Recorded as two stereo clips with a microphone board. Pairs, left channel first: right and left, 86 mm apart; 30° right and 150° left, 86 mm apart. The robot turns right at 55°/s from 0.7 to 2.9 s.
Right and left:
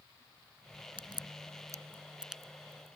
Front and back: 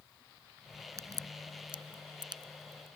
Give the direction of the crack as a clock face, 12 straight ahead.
9 o'clock.